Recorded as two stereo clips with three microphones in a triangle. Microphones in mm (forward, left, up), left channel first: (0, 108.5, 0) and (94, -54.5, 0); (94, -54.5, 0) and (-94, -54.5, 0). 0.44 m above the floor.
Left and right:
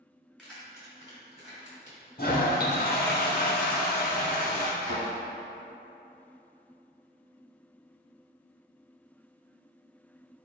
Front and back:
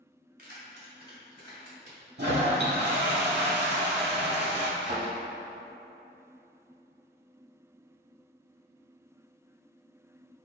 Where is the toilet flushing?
155° left, 0.7 m.